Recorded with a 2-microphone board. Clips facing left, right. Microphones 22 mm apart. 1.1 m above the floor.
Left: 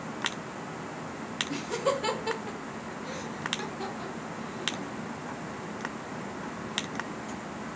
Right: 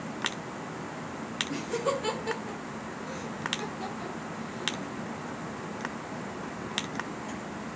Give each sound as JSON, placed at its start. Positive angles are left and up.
{"t": 1.5, "sound": "laughter", "side_deg": 30, "distance_m": 1.1}